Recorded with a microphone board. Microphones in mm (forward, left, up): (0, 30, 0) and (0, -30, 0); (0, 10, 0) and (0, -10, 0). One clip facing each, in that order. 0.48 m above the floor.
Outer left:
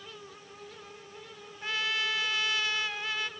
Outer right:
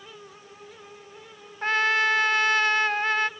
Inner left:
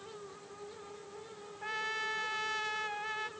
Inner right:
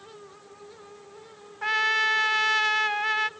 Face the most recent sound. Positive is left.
turn(degrees=-60)  # may be behind; listen again after turning